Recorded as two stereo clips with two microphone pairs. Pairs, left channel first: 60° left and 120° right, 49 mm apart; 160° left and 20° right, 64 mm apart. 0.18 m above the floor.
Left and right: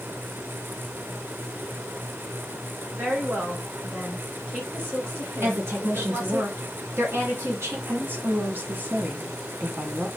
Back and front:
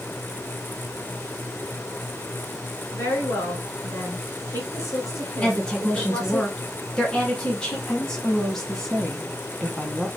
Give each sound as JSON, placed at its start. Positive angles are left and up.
{"t": 2.9, "sound": "a woman speaking", "azimuth_deg": -160, "distance_m": 2.5}
{"t": 5.4, "sound": "a woman speaking", "azimuth_deg": -120, "distance_m": 2.0}
{"t": 7.9, "sound": "a woman speaking", "azimuth_deg": -115, "distance_m": 1.3}